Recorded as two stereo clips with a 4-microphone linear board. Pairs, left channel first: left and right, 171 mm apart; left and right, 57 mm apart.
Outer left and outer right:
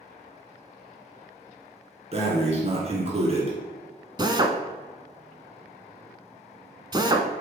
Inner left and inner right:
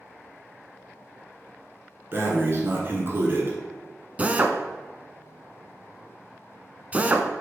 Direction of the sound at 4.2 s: 25° right (ahead or behind).